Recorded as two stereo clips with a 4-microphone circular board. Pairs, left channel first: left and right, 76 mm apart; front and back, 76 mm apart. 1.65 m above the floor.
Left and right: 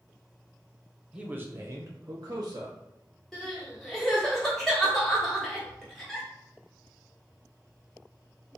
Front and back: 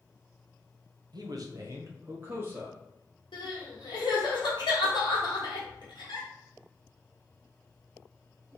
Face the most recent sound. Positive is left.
turn(degrees=5)